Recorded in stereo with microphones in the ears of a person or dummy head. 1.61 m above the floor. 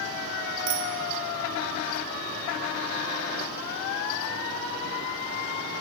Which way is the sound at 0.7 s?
75° right (ahead or behind).